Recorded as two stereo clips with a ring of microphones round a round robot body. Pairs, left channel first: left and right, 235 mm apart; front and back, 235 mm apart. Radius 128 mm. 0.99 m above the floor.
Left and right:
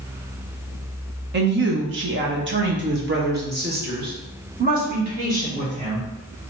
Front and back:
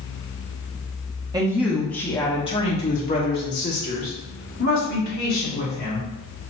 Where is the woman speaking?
110° right, 0.9 m; by 6.1 s 35° right, 3.5 m.